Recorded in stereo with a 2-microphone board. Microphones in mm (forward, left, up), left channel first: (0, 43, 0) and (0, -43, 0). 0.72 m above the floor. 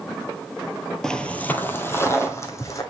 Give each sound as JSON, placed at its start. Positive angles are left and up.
{"t": 1.0, "sound": "footsteps", "side_deg": 5, "distance_m": 0.8}